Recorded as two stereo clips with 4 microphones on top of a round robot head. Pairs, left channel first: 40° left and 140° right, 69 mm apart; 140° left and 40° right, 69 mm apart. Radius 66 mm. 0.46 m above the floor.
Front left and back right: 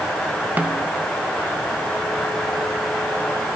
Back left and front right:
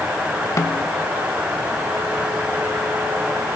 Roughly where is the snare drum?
Behind.